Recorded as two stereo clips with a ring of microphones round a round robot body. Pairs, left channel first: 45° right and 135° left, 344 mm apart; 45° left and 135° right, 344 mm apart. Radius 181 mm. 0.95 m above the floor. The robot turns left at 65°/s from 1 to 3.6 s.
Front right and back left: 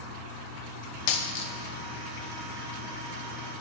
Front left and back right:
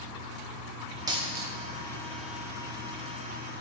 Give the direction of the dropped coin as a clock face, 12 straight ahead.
2 o'clock.